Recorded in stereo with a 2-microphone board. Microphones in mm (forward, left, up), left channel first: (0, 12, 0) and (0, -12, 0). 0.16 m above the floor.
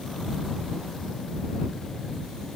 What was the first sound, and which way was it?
Only background noise.